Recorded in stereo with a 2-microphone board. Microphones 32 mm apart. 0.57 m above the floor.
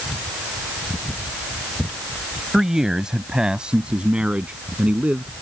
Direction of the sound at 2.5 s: 10° right (ahead or behind).